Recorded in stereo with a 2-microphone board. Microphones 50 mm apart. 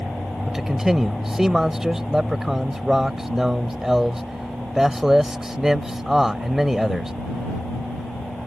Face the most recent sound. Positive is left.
turn(degrees=-10)  # may be behind; listen again after turning